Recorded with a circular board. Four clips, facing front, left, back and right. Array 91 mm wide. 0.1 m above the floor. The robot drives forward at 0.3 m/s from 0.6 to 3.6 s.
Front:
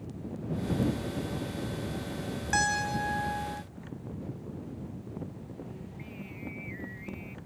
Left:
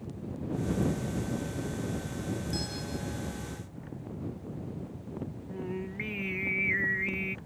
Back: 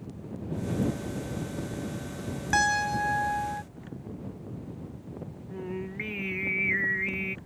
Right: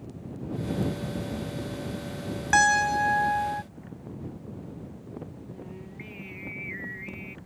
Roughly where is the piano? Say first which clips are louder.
Right 15 dB, back 4 dB; right.